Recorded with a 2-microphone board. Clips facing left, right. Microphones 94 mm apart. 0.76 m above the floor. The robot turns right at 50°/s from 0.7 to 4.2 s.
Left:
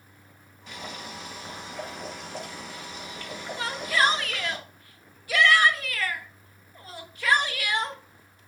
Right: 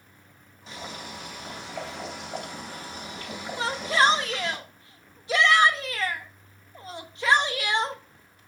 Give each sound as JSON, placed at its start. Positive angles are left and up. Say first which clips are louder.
{"t": 0.7, "sound": "boiling", "louder": "even", "azimuth_deg": -155, "distance_m": 4.5}
{"t": 3.6, "sound": "a shout", "louder": "right 2 dB", "side_deg": -30, "distance_m": 1.0}